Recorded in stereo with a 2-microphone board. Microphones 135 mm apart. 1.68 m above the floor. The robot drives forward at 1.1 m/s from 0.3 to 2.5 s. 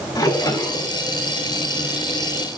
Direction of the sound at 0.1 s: 25° left (ahead or behind).